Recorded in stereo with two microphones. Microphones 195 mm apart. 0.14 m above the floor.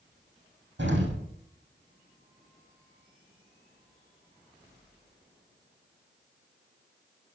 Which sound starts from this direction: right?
An explosion, at 0.8 s.